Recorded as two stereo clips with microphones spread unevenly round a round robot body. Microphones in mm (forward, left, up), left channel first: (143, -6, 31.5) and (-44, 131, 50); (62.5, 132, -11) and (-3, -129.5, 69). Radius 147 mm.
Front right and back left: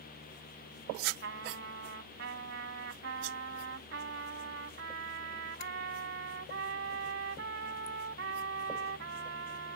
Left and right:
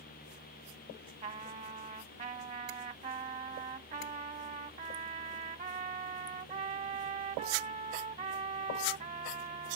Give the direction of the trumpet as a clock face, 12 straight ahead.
6 o'clock.